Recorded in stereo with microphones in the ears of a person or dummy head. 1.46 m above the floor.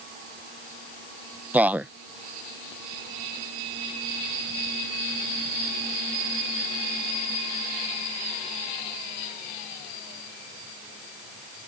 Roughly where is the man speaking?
Centre.